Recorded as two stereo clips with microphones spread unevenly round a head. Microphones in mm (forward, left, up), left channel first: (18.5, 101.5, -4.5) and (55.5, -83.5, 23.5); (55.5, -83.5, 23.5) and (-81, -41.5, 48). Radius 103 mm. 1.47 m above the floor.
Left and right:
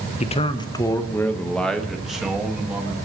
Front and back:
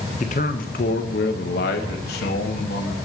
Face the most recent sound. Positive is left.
turn(degrees=0)